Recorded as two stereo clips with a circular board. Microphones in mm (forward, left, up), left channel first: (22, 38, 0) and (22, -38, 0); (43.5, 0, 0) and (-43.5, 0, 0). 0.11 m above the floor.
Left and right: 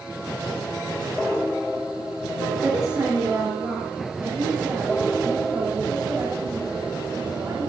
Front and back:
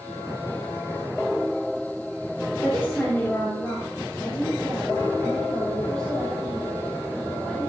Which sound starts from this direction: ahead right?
A woman speaking, at 2.6 s.